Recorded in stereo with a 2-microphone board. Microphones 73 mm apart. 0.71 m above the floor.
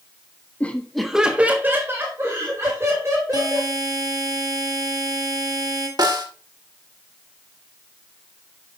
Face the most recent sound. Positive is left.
turn(degrees=-65)  # may be behind; listen again after turning